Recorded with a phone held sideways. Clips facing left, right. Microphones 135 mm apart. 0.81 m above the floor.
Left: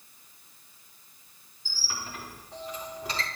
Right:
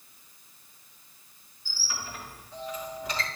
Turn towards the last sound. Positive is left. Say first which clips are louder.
# even
turn(degrees=35)  # may be behind; listen again after turning